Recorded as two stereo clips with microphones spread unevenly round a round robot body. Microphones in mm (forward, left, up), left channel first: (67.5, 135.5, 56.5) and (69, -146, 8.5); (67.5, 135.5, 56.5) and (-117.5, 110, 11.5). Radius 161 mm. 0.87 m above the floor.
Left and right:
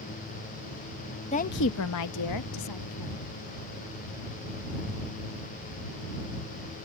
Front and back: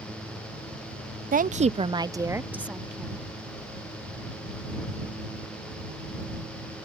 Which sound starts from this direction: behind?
A woman speaking, at 1.3 s.